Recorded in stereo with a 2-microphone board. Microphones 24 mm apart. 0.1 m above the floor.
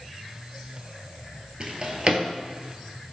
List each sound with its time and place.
1.6 s a drawer: 35° right (ahead or behind), 0.6 m